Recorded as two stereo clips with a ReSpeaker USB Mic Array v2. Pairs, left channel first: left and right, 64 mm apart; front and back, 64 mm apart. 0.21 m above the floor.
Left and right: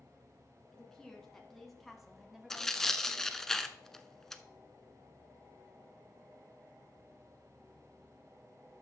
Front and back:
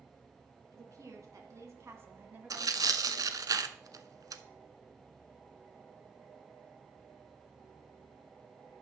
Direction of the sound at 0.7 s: 170° left.